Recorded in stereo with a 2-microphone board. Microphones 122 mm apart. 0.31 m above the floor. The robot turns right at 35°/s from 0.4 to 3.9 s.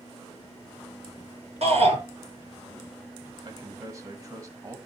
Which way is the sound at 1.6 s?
60° right (ahead or behind).